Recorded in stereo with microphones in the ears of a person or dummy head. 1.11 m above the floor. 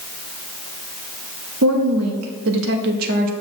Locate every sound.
1.6 s a woman speaking: 80° right, 1.1 m; by 3.3 s 45° right (ahead or behind), 1.0 m